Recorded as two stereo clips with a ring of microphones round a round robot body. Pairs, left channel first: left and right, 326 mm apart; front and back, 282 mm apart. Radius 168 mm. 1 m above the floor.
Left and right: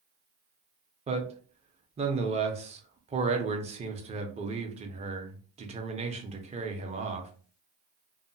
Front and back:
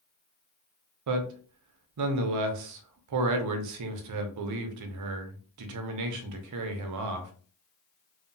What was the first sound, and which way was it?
A man speaking, 160° right.